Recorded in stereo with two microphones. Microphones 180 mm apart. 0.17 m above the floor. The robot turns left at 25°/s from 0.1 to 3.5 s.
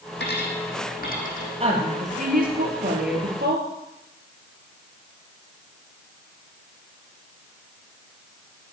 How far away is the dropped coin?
About 3 m.